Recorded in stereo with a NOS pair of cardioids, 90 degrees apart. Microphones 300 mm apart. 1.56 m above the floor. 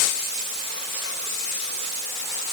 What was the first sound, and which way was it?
Only background noise.